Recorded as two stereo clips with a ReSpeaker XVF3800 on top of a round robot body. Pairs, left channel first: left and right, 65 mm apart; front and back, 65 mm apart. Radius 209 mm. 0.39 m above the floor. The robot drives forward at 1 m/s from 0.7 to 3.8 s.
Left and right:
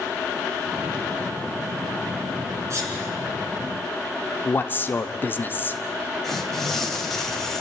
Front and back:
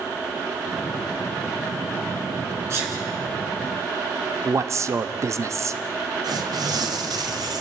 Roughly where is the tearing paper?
Behind.